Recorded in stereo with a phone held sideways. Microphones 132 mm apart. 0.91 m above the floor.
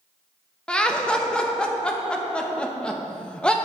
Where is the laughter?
10° left (ahead or behind), 0.8 m.